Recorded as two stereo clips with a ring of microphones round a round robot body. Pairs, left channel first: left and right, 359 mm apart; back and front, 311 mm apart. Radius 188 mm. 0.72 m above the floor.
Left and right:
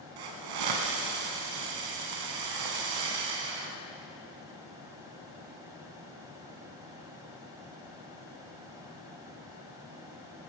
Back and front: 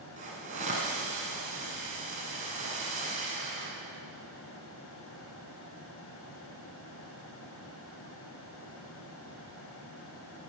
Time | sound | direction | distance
0.2 | a hiss | 70° right | 1.4 m